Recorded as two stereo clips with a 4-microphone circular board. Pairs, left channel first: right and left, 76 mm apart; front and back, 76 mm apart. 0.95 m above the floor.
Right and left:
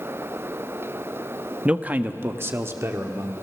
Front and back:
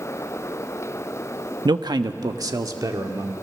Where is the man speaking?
165° left, 0.8 m; by 3.3 s 140° left, 2.5 m.